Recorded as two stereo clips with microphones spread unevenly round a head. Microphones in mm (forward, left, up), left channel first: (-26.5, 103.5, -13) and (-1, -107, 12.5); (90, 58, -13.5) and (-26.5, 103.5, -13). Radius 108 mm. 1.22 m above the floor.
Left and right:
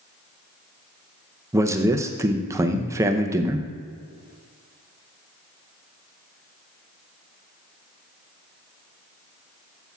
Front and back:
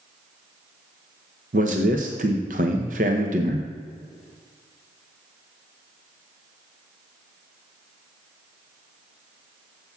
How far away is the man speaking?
About 0.6 m.